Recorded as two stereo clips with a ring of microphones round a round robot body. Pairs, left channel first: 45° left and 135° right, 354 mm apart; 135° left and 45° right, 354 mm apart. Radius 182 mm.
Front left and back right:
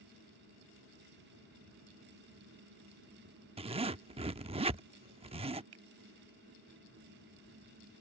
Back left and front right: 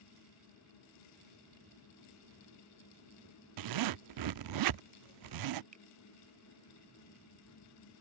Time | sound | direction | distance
3.6 | a zipper | 65° right | ?
5.7 | a finger snap | 115° right | ?